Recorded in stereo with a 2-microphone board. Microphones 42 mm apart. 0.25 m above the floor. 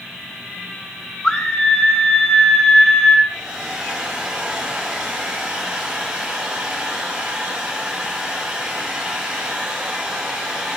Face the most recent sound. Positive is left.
turn(degrees=-10)  # may be behind; listen again after turning